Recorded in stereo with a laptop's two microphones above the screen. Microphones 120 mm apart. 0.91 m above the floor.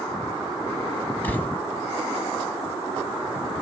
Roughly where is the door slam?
Centre.